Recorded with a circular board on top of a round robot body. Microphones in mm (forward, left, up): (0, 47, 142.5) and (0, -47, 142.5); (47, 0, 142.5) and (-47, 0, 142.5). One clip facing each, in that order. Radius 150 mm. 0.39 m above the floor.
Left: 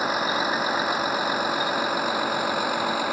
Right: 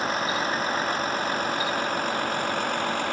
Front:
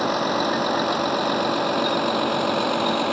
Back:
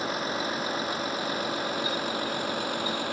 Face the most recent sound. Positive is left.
turn(degrees=5)